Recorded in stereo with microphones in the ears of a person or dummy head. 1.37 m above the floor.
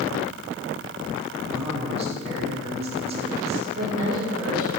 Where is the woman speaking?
40° right (ahead or behind), 4 m.